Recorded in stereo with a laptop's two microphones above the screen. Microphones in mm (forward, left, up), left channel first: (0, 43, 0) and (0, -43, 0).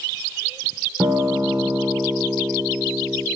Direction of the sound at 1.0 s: 45° right (ahead or behind).